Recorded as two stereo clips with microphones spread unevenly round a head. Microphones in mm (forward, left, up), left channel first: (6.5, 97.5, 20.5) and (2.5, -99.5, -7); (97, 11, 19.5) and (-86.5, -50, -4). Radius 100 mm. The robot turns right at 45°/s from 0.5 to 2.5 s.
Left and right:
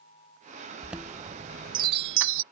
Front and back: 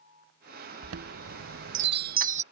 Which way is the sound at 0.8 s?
Straight behind.